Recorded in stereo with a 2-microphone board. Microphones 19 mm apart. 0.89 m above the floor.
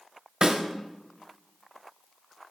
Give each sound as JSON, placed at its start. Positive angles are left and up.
{"t": 0.4, "sound": "a snare drum", "side_deg": -50, "distance_m": 1.3}